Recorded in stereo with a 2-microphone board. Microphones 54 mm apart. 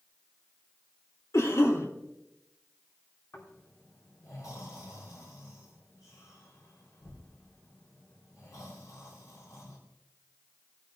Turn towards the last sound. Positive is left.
turn(degrees=80)